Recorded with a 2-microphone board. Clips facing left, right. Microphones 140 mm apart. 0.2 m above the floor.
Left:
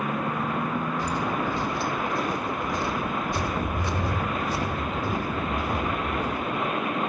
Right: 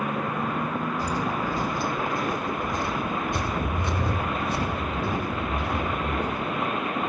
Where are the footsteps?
40° right (ahead or behind), 5 m; by 6.7 s 70° right (ahead or behind), 8.5 m.